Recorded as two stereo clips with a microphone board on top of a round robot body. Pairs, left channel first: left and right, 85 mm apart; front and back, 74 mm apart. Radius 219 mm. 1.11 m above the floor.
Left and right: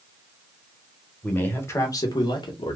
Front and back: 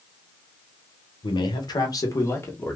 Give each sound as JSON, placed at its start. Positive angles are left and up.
{"t": 1.2, "sound": "a man speaking", "azimuth_deg": 15, "distance_m": 1.3}